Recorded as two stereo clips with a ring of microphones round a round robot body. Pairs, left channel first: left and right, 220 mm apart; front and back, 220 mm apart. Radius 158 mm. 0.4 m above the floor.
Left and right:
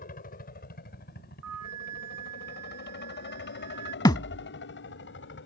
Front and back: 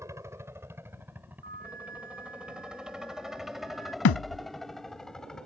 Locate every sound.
0.0 s a helicopter: 110° left; by 5.5 s 85° left
1.4 s a flute: 115° right
4.0 s a thud: 15° left